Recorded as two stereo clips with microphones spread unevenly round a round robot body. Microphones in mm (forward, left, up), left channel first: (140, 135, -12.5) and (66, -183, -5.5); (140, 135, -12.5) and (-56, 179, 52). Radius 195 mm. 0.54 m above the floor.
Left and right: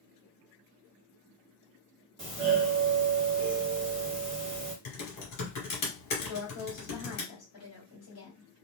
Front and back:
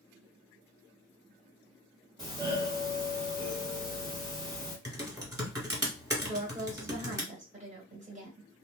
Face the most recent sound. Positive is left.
turn(degrees=105)